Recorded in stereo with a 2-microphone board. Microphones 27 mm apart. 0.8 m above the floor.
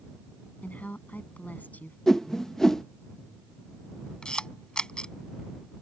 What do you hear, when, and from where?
0.6 s a woman speaking: 70° left (ahead or behind)
2.1 s a whoosh: 15° left (ahead or behind)
4.2 s a camera shutter: 30° left (ahead or behind)